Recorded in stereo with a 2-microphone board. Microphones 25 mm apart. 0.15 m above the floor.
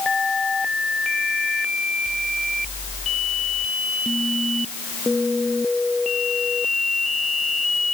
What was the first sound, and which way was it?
Only background noise.